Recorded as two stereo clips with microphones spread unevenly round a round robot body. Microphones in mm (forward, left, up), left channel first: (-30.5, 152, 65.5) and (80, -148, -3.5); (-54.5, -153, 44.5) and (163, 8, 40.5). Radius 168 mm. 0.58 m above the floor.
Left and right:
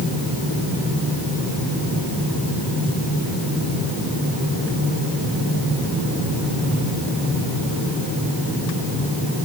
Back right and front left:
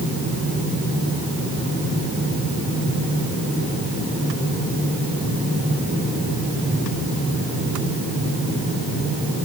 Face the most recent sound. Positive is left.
No sound to turn to.